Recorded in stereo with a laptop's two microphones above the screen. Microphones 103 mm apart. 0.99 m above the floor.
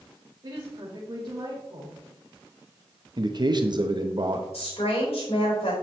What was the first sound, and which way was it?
A woman speaking, 55° right (ahead or behind).